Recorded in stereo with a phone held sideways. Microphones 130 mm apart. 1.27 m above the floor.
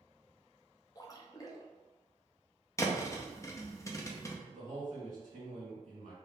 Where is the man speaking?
75° right (ahead or behind), 1.9 m.